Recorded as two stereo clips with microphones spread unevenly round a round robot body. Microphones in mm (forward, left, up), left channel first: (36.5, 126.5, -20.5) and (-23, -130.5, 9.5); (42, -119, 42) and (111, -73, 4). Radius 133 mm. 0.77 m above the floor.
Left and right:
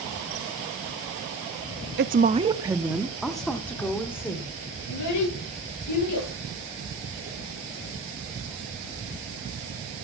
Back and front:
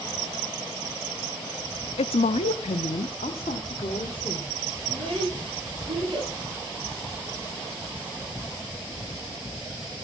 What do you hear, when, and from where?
2.0 s a woman speaking: 150° right, 0.6 m; by 4.5 s 155° left, 2 m
4.9 s a child speaking: 105° left, 9 m